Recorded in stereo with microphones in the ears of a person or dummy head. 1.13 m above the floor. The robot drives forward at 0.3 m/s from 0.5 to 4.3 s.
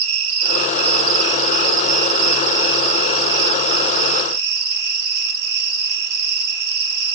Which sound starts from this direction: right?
An insect, at 0.0 s.